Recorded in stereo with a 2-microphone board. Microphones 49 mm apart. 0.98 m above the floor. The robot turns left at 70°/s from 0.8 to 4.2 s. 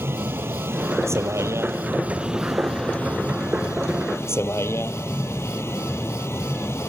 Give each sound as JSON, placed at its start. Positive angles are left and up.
{"t": 0.0, "sound": "a vehicle", "azimuth_deg": -55}